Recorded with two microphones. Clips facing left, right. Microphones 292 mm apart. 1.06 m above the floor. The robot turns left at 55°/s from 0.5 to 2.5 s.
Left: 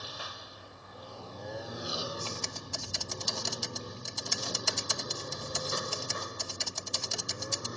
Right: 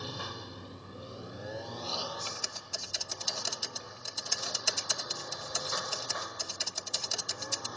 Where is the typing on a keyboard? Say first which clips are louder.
Left 5 dB; 15° right (ahead or behind); by 7.7 s 5° right (ahead or behind).